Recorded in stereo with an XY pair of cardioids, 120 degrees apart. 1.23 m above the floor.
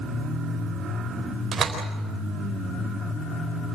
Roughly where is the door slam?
Ahead right.